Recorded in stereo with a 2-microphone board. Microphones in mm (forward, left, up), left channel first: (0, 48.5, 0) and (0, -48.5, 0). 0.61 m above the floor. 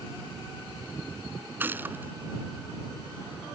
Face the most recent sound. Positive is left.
turn(degrees=-20)  # may be behind; listen again after turning